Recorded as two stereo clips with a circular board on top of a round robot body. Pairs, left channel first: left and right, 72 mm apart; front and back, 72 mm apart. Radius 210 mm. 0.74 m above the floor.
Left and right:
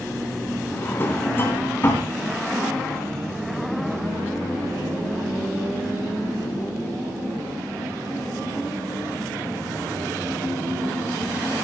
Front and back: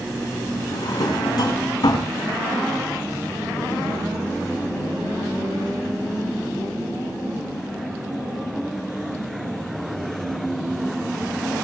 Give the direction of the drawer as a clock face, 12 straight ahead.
11 o'clock.